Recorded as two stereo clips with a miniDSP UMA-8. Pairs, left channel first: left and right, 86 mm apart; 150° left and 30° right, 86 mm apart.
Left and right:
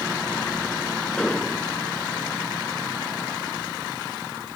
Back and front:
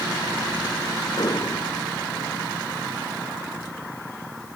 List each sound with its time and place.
1.2 s an explosion: 170° left